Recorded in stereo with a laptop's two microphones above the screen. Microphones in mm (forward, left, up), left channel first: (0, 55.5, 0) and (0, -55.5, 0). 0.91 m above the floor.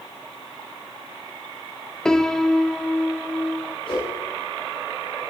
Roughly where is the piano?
Centre.